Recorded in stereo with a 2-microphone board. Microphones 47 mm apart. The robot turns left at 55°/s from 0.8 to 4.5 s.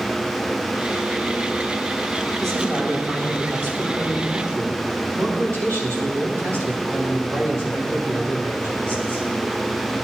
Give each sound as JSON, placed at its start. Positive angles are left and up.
{"t": 2.4, "sound": "a man speaking", "azimuth_deg": 10, "distance_m": 8.0}